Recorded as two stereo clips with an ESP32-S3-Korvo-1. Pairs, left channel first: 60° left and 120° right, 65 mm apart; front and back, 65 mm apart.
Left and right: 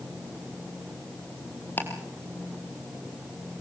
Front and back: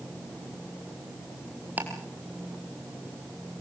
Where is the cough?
I don't hear a cough.